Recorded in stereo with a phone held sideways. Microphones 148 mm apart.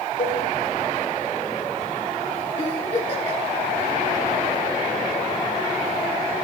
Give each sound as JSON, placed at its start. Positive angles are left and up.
{"t": 0.2, "sound": "a cowbell", "side_deg": 65, "distance_m": 2.5}
{"t": 2.6, "sound": "a giggle", "side_deg": 45, "distance_m": 3.5}